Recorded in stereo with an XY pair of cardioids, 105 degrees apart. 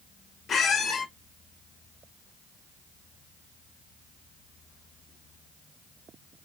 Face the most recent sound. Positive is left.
turn(degrees=55)